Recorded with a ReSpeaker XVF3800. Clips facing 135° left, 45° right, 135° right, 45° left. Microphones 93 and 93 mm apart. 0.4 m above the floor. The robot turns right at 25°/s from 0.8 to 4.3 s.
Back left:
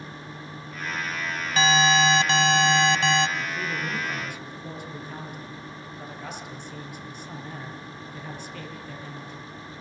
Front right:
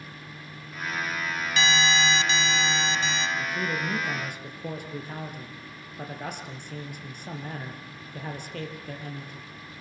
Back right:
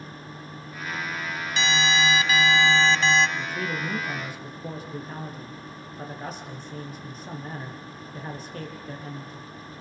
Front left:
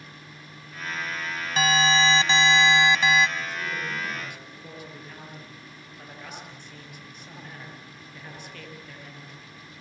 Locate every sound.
1.6 s an alarm: 90° left, 1.7 m; by 3.3 s 130° left, 1.7 m
3.4 s a man speaking: 105° right, 7 m; by 9.5 s 80° right, 7 m